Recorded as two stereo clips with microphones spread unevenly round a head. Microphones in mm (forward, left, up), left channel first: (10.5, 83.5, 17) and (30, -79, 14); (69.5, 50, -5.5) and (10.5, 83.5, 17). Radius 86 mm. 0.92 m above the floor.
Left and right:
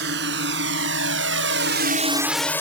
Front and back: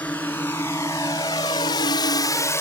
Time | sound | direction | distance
0.0 | a drone | 110° right | ?